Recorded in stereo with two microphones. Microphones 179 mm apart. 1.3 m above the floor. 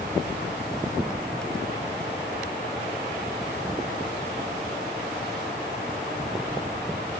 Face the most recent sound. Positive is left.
No sound to turn to.